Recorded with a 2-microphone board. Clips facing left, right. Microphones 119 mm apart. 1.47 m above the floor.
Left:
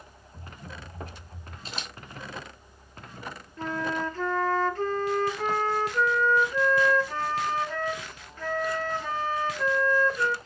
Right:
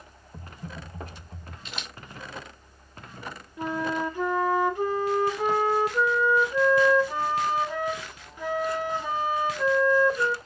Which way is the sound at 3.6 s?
15° right (ahead or behind).